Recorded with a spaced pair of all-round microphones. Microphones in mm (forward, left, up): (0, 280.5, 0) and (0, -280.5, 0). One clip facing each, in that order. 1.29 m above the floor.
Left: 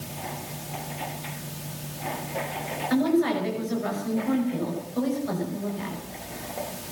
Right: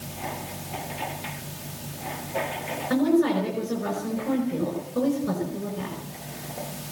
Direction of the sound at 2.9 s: 65° right (ahead or behind).